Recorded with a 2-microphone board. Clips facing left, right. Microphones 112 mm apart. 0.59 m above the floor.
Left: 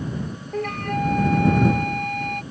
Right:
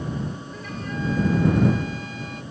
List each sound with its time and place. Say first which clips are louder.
0.5 s a flute: left 7 dB; 60° left (ahead or behind)